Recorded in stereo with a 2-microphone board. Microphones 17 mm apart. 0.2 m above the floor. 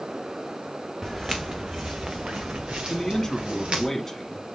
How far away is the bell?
I don't hear a bell.